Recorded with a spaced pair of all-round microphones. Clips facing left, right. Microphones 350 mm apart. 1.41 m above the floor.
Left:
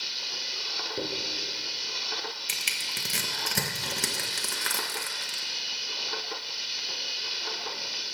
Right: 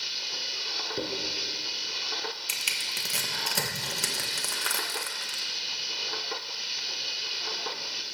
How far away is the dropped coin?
About 4 m.